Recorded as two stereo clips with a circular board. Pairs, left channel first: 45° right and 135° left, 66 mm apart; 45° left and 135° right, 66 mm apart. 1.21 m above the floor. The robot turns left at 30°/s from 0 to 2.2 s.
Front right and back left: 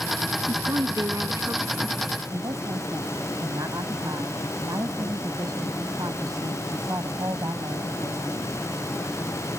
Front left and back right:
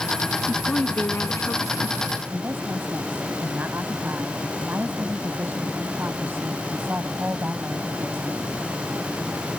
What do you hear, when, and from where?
0.5 s a woman speaking: 120° left; by 2.0 s 75° left
2.3 s a woman speaking: 165° left